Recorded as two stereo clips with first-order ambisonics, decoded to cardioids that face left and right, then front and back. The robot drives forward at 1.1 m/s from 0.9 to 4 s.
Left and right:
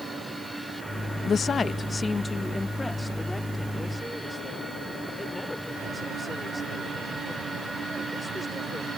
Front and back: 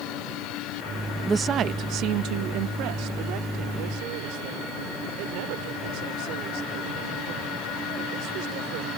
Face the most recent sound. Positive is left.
turn(degrees=175)